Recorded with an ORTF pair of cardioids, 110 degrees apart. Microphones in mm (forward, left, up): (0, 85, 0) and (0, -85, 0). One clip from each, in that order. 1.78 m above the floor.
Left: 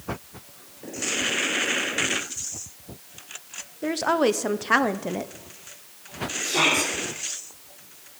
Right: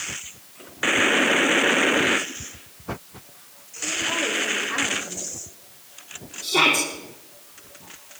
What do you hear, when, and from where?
3.8 s a woman speaking: 70° left, 1.1 m
6.4 s a shout: 25° right, 4 m